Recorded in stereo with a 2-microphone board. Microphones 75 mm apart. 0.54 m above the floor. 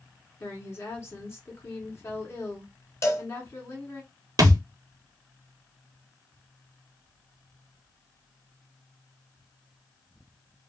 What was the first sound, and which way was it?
A woman speaking, 35° left (ahead or behind).